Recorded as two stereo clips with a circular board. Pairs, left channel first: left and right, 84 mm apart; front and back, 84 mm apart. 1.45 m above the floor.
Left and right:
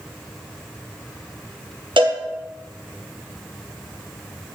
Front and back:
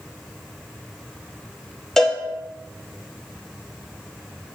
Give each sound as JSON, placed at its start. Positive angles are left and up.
{"t": 2.0, "sound": "a cowbell", "azimuth_deg": -85, "distance_m": 1.1}